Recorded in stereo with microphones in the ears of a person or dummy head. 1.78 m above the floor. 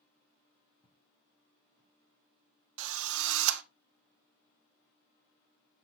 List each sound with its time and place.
0.8 s footsteps: 30° left (ahead or behind), 4 m; by 1.9 s 25° left (ahead or behind), 4.5 m
2.8 s a drill: 80° right, 1.1 m